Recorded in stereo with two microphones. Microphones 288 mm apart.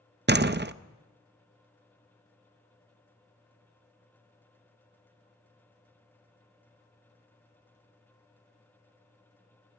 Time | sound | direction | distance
0.3 | a door slam | 35° right (ahead or behind) | 0.5 m